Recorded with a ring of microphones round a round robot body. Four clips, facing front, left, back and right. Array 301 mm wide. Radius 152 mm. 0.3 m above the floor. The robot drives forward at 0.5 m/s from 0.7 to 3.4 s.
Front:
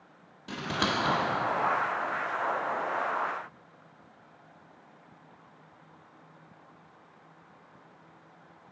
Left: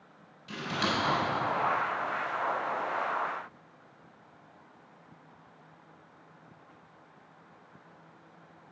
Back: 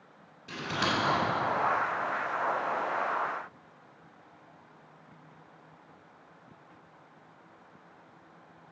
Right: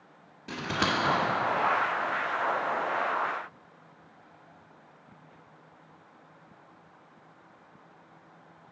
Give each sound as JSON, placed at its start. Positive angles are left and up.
{"t": 0.5, "sound": "scissors", "azimuth_deg": -45, "distance_m": 1.5}